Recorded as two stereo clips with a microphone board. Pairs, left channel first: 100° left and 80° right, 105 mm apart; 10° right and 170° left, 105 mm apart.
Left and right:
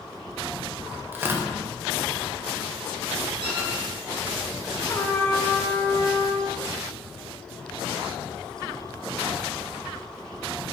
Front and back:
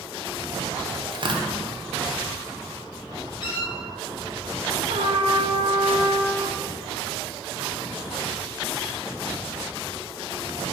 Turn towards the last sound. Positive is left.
turn(degrees=165)